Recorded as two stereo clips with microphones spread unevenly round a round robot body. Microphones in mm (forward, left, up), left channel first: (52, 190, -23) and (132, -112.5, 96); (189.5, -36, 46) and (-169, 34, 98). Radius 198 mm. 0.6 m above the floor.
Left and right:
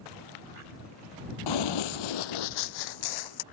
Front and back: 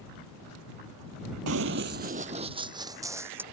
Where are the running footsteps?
140° left; by 3.4 s 90° left.